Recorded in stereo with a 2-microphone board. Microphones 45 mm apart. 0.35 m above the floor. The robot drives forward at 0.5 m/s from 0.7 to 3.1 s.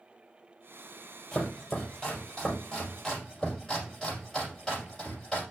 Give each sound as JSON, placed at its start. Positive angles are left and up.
{"t": 1.3, "sound": "chopping", "side_deg": 15, "distance_m": 4.5}